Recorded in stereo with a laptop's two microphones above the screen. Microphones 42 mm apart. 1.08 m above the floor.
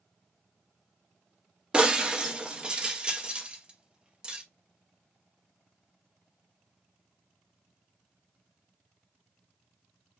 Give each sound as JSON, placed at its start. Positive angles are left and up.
{"t": 1.7, "sound": "breaking glass", "side_deg": -20, "distance_m": 0.6}